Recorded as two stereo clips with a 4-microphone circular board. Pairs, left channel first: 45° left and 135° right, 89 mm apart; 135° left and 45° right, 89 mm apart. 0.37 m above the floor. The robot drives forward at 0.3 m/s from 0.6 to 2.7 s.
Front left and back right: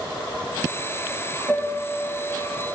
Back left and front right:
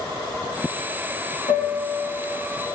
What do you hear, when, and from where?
1.5 s a piano: 155° left, 3 m